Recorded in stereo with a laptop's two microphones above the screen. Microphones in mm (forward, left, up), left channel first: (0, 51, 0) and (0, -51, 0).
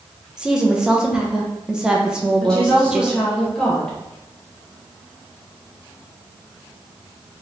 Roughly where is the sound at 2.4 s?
Centre.